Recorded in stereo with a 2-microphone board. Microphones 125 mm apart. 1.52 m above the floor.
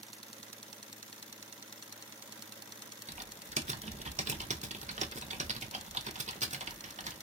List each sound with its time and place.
3.1 s typing on a keyboard: 65° right (ahead or behind), 0.6 m